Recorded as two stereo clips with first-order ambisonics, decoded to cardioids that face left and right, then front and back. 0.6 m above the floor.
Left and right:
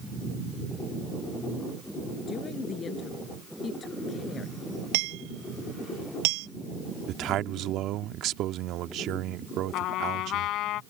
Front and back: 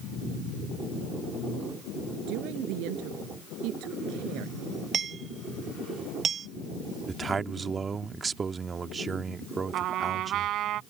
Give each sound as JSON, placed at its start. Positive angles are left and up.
{"t": 2.3, "sound": "a woman speaking", "azimuth_deg": 155}
{"t": 4.9, "sound": "hammering", "azimuth_deg": -110}
{"t": 7.1, "sound": "a man speaking", "azimuth_deg": -110}
{"t": 9.7, "sound": "a trumpet", "azimuth_deg": 130}